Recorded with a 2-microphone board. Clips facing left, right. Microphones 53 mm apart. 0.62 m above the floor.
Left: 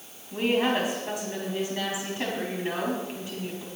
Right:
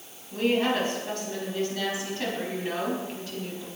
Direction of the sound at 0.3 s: 15° left (ahead or behind).